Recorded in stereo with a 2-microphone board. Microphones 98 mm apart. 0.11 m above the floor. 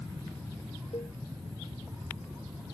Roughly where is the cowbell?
Left.